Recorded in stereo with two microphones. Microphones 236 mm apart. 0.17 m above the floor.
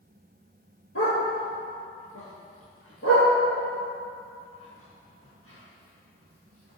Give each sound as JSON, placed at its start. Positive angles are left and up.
{"t": 0.9, "sound": "a dog barking", "side_deg": 75, "distance_m": 1.6}